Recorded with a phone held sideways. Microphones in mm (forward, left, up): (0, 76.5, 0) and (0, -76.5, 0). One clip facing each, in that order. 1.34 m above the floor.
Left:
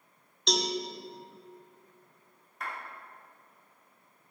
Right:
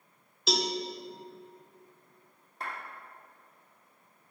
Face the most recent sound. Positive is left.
turn(degrees=-30)  # may be behind; listen again after turning